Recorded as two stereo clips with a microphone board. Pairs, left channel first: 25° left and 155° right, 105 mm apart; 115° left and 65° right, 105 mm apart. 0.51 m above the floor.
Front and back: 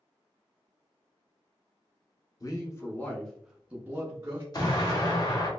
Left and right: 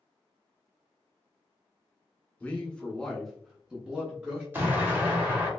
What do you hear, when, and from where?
2.4 s a man speaking: 45° left, 1.0 m; by 4.4 s 135° right, 1.0 m
4.5 s an explosion: 5° right, 1.0 m